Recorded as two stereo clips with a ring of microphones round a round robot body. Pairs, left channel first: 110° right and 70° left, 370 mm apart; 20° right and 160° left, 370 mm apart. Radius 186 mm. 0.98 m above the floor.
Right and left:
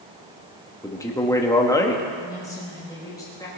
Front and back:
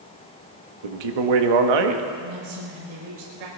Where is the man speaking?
165° left, 1.6 m.